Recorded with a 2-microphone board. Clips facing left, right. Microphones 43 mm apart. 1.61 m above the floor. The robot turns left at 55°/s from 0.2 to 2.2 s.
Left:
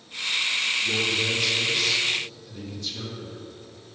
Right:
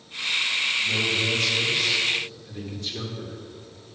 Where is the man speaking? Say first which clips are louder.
Right 1 dB; 50° left, 2.5 m; by 3.4 s 25° right, 2.5 m.